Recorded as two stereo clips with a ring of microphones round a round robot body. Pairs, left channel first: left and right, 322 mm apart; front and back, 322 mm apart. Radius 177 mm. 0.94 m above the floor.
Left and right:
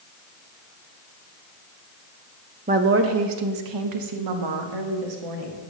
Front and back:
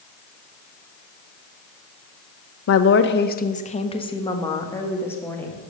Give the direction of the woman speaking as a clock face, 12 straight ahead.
1 o'clock.